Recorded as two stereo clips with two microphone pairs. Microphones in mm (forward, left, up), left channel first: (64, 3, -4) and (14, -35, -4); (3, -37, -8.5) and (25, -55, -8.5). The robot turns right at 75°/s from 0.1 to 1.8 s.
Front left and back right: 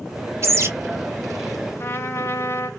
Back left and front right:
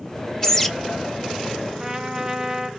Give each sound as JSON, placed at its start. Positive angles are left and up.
{"t": 0.4, "sound": "a bird", "azimuth_deg": -150, "distance_m": 0.7}
{"t": 1.8, "sound": "a trumpet", "azimuth_deg": 15, "distance_m": 0.6}